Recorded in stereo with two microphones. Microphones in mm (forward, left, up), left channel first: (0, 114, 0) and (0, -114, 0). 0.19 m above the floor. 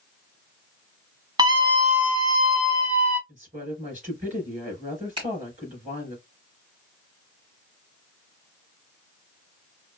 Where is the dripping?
No dripping in this recording.